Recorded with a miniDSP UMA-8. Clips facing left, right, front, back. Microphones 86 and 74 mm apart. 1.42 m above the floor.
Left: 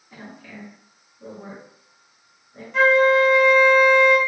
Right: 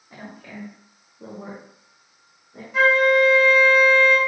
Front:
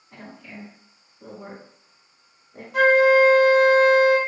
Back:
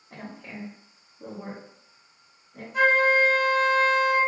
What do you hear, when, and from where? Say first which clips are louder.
0.1 s a woman speaking: right 1 dB, back 1 dB; 140° right, 1.9 m; by 2.6 s 60° right, 1.7 m
2.7 s a flute: left 1 dB, front 5 dB; 5° right, 0.8 m